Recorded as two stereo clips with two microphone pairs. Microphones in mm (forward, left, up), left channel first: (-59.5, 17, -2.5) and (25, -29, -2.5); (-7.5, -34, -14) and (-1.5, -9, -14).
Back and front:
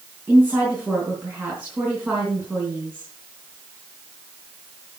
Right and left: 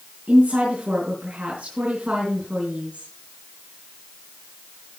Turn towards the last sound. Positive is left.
turn(degrees=40)